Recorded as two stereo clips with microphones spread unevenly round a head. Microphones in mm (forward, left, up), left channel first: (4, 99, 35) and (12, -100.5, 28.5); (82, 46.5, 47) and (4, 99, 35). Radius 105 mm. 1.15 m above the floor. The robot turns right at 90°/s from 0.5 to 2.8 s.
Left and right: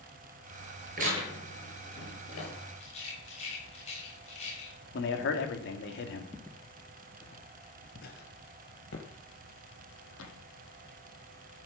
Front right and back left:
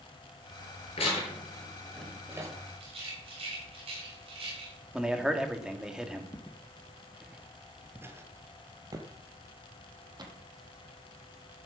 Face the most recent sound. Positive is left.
turn(degrees=110)